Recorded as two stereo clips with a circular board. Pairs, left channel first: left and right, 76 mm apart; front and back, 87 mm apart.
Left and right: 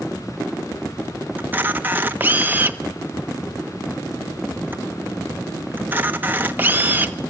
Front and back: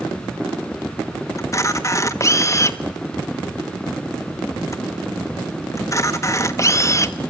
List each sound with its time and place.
1.4 s a camera shutter: 35° right, 1.2 m